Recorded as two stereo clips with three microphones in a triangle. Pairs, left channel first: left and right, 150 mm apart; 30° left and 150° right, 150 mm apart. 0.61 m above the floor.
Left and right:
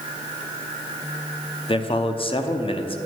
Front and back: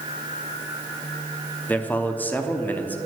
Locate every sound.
1.7 s a man speaking: 100° left, 0.7 m